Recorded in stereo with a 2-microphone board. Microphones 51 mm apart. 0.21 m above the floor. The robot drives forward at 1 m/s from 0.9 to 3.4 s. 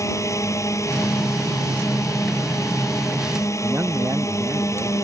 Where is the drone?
75° left (ahead or behind).